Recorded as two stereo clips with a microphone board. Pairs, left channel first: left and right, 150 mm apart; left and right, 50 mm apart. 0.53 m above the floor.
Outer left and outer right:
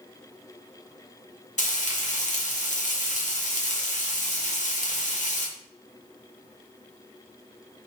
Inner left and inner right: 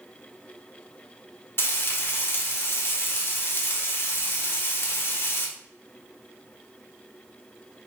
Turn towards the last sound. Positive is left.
turn(degrees=55)  # may be behind; listen again after turning